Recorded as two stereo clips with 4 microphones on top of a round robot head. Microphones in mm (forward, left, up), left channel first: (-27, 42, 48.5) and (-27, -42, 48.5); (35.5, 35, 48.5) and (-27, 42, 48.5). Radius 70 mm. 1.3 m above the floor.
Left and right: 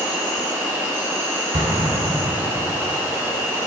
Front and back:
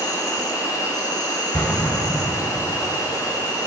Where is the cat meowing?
No cat meowing in this recording.